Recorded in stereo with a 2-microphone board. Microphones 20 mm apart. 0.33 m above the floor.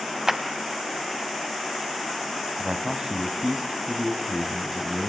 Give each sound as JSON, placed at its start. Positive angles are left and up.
{"t": 0.3, "sound": "a clap", "side_deg": -20, "distance_m": 1.9}
{"t": 2.6, "sound": "a man speaking", "side_deg": -30, "distance_m": 2.5}